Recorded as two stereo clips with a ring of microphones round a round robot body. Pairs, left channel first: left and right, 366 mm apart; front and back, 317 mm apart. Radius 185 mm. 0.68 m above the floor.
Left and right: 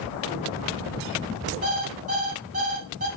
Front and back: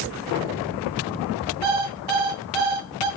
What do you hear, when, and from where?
1.6 s an alarm clock: 160° right, 2.5 m